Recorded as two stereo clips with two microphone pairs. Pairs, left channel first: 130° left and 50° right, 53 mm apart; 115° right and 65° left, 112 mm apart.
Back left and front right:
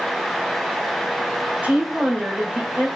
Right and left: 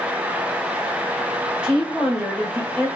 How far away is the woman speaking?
About 1.4 m.